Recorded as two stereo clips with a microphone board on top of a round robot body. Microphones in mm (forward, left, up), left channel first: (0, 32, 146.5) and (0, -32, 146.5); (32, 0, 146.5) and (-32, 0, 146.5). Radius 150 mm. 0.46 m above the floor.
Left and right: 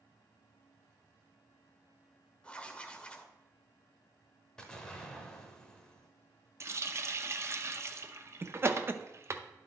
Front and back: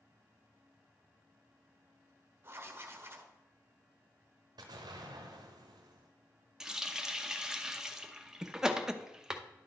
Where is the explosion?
170° left, 0.8 m.